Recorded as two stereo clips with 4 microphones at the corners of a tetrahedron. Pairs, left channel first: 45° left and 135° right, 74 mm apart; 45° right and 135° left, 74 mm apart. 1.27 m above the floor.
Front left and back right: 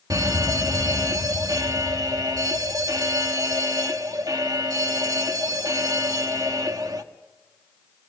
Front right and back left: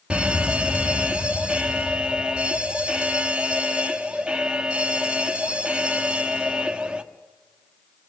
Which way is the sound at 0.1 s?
150° right.